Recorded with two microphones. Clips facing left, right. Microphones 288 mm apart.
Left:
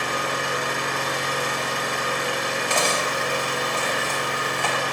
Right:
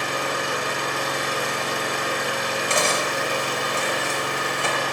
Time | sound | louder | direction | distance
0.0 | an engine running | right 1 dB | centre (ahead or behind) | 0.9 m
2.7 | cutlery clinking | right 1 dB | 20° right (ahead or behind) | 0.5 m